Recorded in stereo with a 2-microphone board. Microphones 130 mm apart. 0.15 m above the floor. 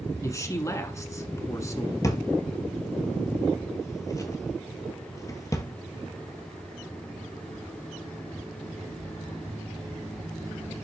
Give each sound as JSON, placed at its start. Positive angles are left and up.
{"t": 0.2, "sound": "a man speaking", "side_deg": 25, "distance_m": 1.5}
{"t": 2.0, "sound": "a drawer", "side_deg": 25, "distance_m": 1.1}